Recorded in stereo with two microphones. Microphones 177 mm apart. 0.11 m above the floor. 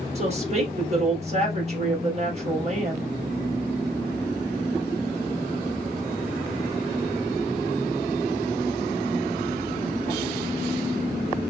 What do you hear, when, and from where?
0.1 s a woman speaking: 40° right (ahead or behind), 3 m